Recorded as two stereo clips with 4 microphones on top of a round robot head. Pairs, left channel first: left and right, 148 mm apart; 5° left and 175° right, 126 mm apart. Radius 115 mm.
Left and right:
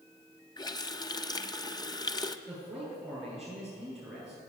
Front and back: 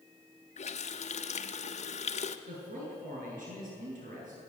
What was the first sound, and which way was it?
A running tap, 30° left.